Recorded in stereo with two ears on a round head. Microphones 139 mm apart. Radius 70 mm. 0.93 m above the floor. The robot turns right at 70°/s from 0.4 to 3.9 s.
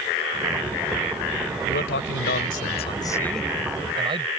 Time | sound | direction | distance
1.6 | a man speaking | 55° left | ?